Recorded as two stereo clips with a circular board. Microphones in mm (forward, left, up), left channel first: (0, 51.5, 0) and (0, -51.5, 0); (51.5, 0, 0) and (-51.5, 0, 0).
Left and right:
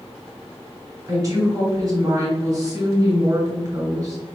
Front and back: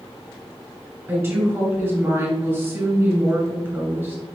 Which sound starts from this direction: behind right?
A woman speaking, at 1.1 s.